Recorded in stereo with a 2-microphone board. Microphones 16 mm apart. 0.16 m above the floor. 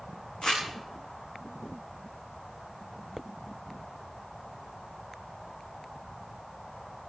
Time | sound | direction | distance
0.4 | crumpling | 85° left | 5 m